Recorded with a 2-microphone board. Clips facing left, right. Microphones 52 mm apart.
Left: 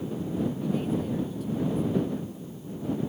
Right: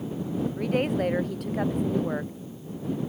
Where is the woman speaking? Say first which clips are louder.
Right 3 dB; 65° right (ahead or behind).